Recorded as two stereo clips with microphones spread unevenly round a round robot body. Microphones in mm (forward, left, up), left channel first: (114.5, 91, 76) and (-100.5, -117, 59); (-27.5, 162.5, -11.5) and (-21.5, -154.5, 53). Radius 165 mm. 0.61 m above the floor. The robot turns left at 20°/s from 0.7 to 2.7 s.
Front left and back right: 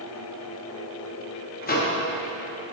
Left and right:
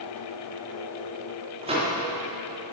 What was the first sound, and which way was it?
A microwave, 10° right.